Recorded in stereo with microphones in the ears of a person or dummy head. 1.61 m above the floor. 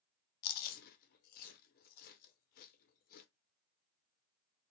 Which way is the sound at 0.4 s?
55° left (ahead or behind).